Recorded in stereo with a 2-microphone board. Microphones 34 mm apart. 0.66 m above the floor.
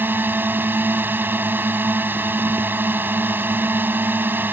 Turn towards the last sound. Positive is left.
turn(degrees=-75)  # may be behind; listen again after turning